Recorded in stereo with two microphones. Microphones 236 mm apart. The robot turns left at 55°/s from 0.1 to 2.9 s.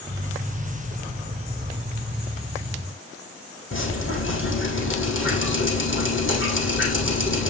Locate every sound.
3.7 s dripping: 55° left (ahead or behind), 4 m